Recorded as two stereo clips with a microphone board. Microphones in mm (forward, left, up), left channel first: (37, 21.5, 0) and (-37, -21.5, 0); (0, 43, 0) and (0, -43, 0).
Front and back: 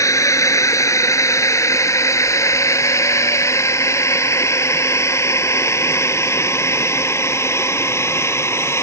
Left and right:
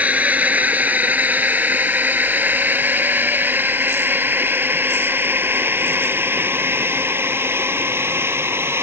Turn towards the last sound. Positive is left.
turn(degrees=-30)